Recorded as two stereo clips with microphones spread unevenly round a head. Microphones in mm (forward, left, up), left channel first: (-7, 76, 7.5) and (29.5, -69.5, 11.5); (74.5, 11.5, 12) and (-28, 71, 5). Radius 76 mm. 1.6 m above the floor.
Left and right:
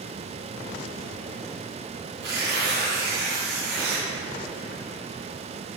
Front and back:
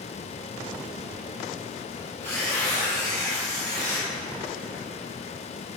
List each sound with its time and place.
2.2 s tearing paper: 105° right, 3 m